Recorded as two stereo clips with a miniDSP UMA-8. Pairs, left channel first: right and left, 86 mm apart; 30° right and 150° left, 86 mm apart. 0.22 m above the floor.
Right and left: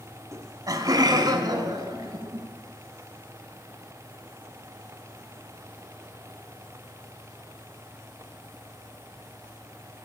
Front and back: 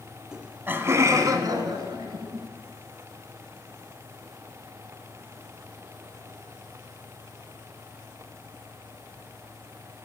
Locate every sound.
0.3 s laughter: 70° left, 1.3 m; by 2.5 s 130° left, 3 m